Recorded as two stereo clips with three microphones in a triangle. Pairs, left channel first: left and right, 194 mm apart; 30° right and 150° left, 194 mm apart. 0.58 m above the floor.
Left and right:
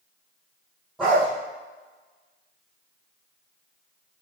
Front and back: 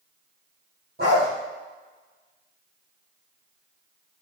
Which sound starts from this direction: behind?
A dog barking, at 1.0 s.